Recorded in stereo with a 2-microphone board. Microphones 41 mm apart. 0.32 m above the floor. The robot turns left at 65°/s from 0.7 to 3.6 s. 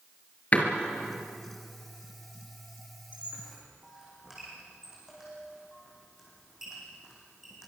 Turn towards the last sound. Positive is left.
turn(degrees=-10)  # may be behind; listen again after turning